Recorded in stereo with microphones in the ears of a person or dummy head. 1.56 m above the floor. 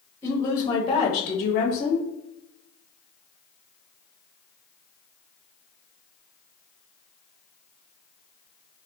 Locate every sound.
0.2 s a woman speaking: 20° left (ahead or behind), 1.0 m; by 2.1 s 45° left (ahead or behind), 0.6 m